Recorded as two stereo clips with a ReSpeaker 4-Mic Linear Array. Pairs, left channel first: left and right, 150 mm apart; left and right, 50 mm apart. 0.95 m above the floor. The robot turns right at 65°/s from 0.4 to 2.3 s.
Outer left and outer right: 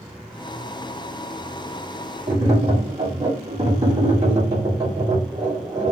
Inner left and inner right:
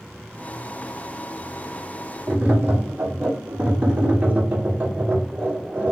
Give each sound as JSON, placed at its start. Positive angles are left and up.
{"t": 2.3, "sound": "tapping", "side_deg": -40, "distance_m": 1.6}